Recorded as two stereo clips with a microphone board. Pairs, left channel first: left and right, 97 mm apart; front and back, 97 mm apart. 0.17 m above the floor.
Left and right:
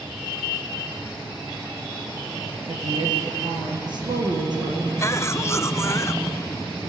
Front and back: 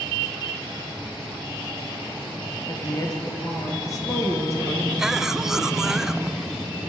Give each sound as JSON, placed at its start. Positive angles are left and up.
{"t": 2.7, "sound": "a woman speaking", "azimuth_deg": -55, "distance_m": 4.5}
{"t": 5.0, "sound": "a cough", "azimuth_deg": 100, "distance_m": 1.1}